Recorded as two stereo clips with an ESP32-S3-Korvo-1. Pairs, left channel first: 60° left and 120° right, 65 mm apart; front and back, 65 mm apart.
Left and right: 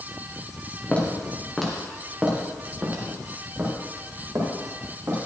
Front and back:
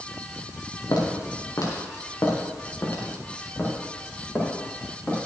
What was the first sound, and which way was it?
Footsteps, 10° right.